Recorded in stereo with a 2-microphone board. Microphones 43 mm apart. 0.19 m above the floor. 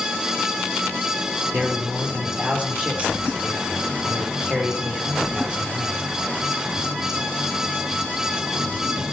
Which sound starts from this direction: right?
A man speaking, at 1.5 s.